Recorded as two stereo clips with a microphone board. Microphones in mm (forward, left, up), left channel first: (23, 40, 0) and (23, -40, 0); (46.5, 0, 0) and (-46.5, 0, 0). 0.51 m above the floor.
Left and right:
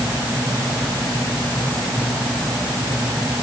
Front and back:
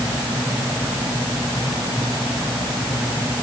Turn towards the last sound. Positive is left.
No sound to turn to.